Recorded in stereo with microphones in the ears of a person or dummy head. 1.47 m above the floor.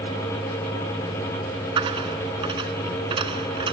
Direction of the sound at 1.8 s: 30° right (ahead or behind).